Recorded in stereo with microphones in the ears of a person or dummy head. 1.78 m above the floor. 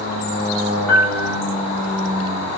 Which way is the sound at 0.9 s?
10° left (ahead or behind).